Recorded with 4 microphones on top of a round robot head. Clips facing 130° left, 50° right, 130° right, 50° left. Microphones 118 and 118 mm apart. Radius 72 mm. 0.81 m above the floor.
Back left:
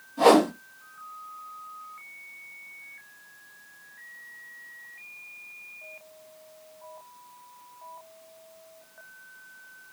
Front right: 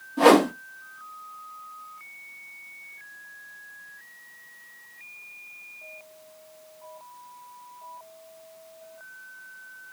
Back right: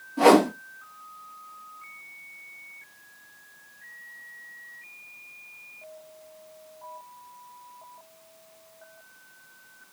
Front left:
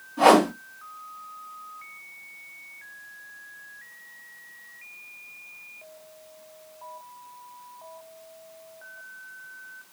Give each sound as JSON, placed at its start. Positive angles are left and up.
{"t": 0.2, "sound": "a whoosh", "azimuth_deg": -70, "distance_m": 1.3}